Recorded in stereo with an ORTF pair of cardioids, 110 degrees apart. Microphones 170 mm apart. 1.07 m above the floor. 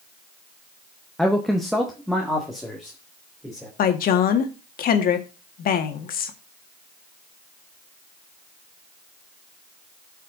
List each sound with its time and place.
1.2 s a man speaking: straight ahead, 0.8 m
3.8 s a woman speaking: 60° left, 1.6 m